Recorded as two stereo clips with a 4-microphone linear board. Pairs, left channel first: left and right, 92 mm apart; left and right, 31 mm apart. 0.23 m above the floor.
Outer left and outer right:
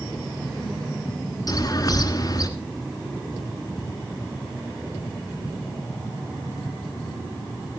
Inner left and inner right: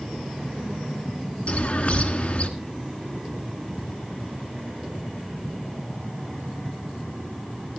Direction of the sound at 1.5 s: 40° left (ahead or behind).